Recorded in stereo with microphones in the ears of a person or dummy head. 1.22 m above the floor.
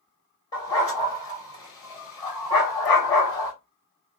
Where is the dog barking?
20° left (ahead or behind), 2.5 m.